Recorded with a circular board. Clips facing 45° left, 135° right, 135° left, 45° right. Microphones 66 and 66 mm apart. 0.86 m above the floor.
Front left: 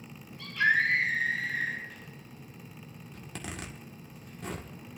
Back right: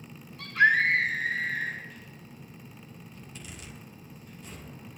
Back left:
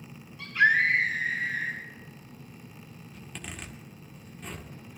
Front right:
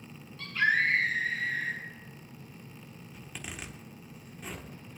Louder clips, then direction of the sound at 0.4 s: Back right 4 dB, back left 4 dB; 145° right.